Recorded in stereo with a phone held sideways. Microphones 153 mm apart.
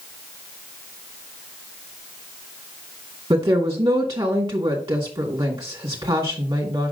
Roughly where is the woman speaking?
Right.